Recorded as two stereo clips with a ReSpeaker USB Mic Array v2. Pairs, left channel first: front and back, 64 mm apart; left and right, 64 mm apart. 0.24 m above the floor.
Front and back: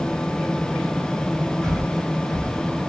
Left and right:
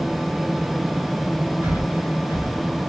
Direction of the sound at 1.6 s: 80° right.